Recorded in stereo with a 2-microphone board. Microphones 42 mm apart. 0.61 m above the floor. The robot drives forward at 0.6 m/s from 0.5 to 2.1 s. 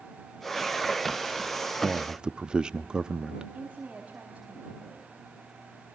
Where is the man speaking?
20° right (ahead or behind), 0.7 m.